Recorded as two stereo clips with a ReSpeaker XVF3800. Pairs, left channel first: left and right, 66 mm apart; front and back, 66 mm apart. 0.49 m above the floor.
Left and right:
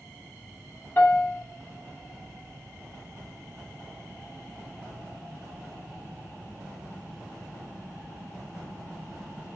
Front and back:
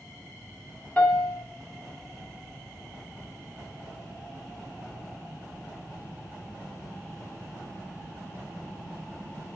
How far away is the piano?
About 0.8 m.